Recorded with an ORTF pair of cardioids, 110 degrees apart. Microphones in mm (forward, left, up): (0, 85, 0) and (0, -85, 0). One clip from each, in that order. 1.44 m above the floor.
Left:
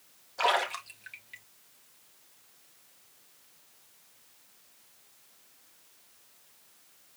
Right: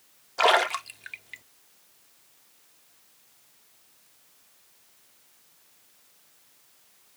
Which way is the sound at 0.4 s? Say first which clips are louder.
Right 6 dB; 35° right.